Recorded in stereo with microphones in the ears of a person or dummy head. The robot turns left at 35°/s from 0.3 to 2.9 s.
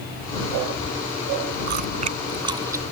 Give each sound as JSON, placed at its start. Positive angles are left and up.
{"t": 1.7, "sound": "chewing", "side_deg": -55}